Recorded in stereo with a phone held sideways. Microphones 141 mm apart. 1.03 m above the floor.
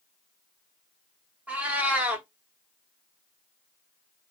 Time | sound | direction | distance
1.5 | a cat meowing | 10° right (ahead or behind) | 0.7 m